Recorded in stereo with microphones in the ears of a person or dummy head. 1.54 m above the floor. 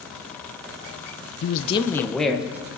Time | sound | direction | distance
1.4 | a man speaking | 70° left (ahead or behind) | 0.7 m